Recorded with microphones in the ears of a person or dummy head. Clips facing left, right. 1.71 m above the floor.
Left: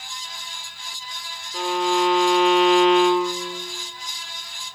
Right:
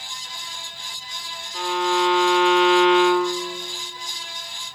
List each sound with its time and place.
1.5 s a violin: 15° left (ahead or behind), 1.3 m